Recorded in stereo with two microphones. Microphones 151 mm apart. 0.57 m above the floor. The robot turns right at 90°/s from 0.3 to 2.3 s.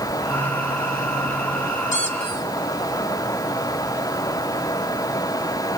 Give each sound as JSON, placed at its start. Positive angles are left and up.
{"t": 1.9, "sound": "a squeak", "azimuth_deg": 115, "distance_m": 2.0}